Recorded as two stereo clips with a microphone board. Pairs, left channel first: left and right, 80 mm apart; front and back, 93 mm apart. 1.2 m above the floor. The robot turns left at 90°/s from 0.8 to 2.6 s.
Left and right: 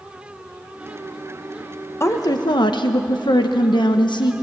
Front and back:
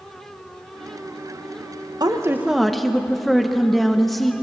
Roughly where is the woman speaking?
Behind left.